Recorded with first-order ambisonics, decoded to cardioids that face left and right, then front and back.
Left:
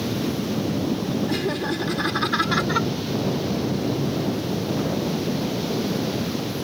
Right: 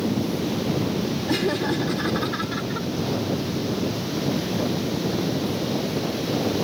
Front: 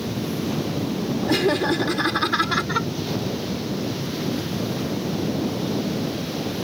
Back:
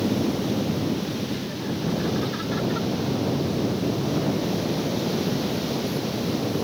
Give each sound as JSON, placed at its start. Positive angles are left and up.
{"t": 1.3, "sound": "laughter", "azimuth_deg": -10}